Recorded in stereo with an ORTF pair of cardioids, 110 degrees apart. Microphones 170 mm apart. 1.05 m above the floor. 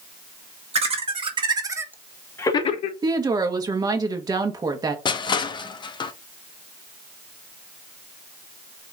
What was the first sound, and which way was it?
Laughter, 40° right.